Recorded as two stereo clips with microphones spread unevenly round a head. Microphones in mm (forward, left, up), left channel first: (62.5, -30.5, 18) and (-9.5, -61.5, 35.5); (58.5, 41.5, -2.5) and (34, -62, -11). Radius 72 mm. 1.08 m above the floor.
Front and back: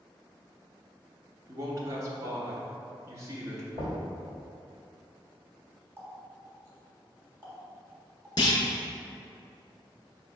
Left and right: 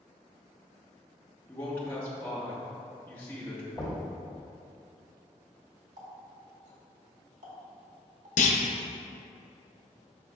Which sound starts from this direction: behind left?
A man speaking, at 1.5 s.